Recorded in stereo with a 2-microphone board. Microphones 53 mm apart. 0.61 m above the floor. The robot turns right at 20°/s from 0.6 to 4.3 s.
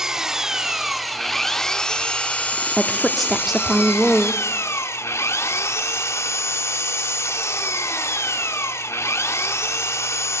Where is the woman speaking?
170° left, 1.4 m; by 4.4 s 155° right, 1.4 m.